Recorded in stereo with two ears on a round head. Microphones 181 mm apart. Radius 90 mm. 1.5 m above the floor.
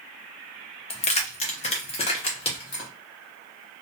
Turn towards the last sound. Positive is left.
turn(degrees=25)  # may be behind; listen again after turning